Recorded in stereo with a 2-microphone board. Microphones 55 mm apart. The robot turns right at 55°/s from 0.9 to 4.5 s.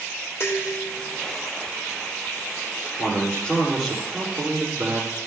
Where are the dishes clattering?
50° left (ahead or behind), 4.5 m; by 1.2 s 65° left (ahead or behind), 4.5 m.